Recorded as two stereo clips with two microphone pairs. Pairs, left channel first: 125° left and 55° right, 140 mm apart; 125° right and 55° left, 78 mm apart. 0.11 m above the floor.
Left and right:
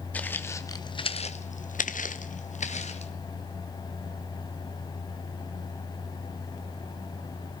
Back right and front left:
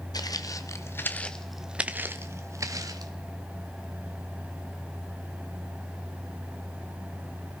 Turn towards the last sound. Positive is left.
turn(degrees=90)